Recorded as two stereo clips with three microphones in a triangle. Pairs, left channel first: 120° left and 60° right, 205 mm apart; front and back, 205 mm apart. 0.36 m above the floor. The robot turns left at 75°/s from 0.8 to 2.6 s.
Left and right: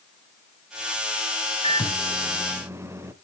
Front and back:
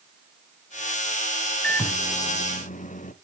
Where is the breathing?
I don't hear breathing.